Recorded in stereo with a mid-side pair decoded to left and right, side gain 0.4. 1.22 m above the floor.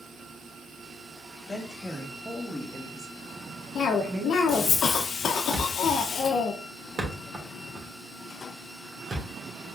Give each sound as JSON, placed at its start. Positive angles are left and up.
{"t": 1.5, "sound": "a woman speaking", "azimuth_deg": 25, "distance_m": 2.0}
{"t": 3.8, "sound": "a cough", "azimuth_deg": 65, "distance_m": 0.7}
{"t": 5.5, "sound": "a thud", "azimuth_deg": -40, "distance_m": 2.0}